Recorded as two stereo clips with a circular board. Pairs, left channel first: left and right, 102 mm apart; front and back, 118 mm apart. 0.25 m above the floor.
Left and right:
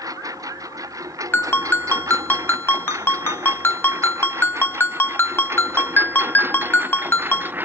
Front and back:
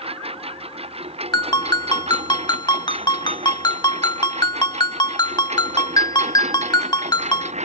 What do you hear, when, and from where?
0.0 s a lawn mower: 145° right; by 7.7 s 160° right
1.3 s a ringtone: 30° left